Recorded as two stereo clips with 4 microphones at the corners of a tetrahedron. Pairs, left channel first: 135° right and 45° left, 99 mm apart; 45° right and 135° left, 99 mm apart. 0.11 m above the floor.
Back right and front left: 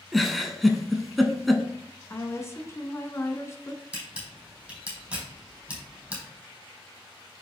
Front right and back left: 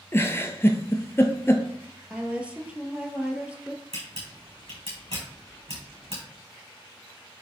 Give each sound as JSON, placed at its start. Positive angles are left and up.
{"t": 0.1, "sound": "a giggle", "azimuth_deg": -45, "distance_m": 1.0}
{"t": 2.1, "sound": "a woman speaking", "azimuth_deg": -160, "distance_m": 1.2}
{"t": 3.9, "sound": "a camera shutter", "azimuth_deg": 120, "distance_m": 4.0}